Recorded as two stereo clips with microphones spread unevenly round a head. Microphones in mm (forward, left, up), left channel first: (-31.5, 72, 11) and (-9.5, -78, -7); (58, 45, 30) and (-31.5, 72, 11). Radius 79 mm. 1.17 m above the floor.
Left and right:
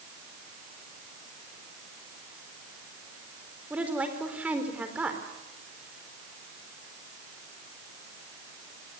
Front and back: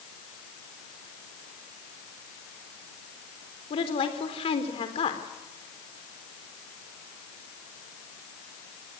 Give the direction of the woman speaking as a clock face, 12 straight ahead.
12 o'clock.